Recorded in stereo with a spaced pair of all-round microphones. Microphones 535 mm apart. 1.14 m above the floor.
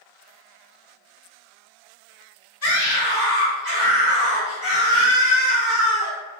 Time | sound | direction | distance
2.6 | a scream | 80° left | 1.6 m